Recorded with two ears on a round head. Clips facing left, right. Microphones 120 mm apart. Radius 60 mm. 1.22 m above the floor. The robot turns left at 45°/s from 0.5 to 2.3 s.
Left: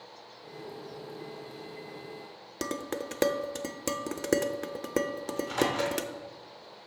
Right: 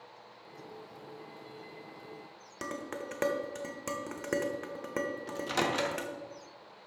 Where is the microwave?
85° right, 1.5 m.